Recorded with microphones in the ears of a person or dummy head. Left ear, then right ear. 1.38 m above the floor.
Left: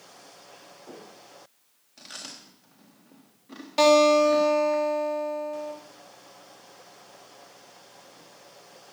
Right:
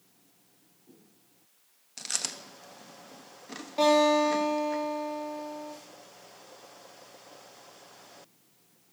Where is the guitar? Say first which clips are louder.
Left 5 dB; 40° left (ahead or behind), 3.5 m.